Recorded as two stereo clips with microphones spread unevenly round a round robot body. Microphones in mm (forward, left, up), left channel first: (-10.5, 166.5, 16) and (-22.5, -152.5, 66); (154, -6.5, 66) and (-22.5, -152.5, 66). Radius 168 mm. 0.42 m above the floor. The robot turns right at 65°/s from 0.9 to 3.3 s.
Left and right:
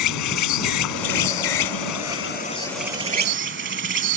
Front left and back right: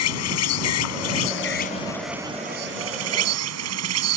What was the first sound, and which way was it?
An insect, 55° left.